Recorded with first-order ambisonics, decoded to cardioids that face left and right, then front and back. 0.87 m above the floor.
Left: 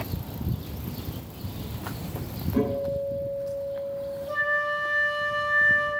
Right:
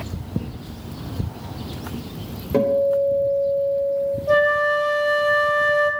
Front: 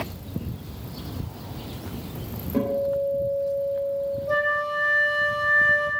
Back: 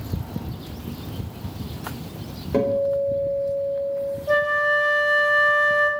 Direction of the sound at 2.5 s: 135° right.